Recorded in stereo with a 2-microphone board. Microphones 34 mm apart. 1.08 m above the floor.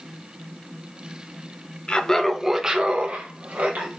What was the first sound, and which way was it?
Laughter, 30° left (ahead or behind).